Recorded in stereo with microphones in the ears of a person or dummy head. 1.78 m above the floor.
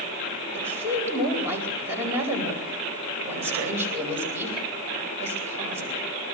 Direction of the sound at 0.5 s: 10° right (ahead or behind).